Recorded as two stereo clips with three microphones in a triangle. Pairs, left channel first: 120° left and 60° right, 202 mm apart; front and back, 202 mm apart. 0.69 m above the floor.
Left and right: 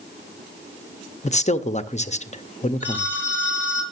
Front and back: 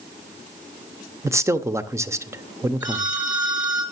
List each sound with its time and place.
1.2 s a man speaking: 115° left, 0.6 m
2.8 s a phone ringing: 20° left, 9.5 m